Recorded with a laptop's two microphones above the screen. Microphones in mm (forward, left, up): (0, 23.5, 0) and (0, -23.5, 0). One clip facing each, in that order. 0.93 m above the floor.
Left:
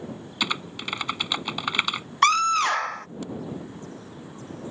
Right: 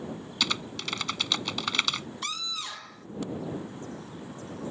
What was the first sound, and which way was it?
Typing on a keyboard, 20° left (ahead or behind).